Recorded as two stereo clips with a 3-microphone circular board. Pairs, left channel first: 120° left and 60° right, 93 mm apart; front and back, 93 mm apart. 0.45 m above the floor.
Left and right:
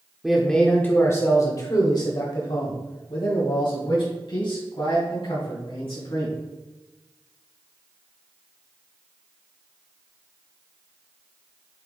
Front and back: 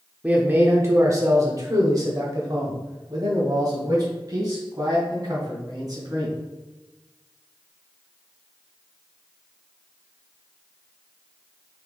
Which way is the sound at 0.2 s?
140° right.